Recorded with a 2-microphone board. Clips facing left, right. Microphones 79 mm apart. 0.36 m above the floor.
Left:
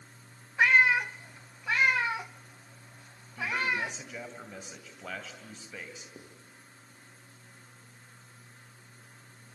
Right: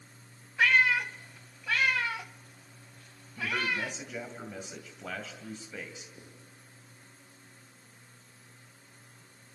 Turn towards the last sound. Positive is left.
turn(degrees=70)  # may be behind; listen again after turning